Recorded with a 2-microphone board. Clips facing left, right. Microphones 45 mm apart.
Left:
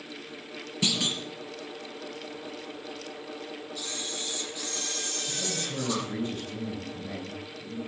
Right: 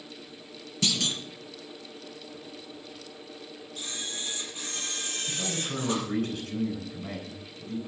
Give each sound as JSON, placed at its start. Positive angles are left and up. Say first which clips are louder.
{"t": 0.8, "sound": "a clunk", "louder": "even", "side_deg": 10, "distance_m": 4.0}
{"t": 3.8, "sound": "a camera shutter", "louder": "right 2 dB", "side_deg": -50, "distance_m": 7.0}
{"t": 5.3, "sound": "a man speaking", "louder": "right 2 dB", "side_deg": -80, "distance_m": 9.5}